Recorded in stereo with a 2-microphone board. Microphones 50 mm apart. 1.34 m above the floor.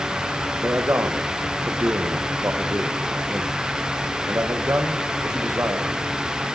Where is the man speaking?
60° right (ahead or behind), 0.7 m.